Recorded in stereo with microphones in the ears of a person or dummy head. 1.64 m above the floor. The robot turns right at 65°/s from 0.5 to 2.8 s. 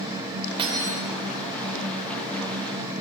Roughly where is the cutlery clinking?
Right.